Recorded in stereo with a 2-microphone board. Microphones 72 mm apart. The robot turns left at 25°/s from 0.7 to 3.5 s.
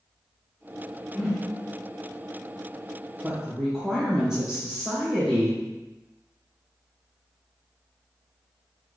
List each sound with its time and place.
1.1 s a whoosh: 10° right (ahead or behind), 1.3 m; by 1.4 s 5° right (ahead or behind), 1.3 m
3.2 s a woman speaking: 15° right (ahead or behind), 1.6 m; by 5.6 s 10° right (ahead or behind), 1.6 m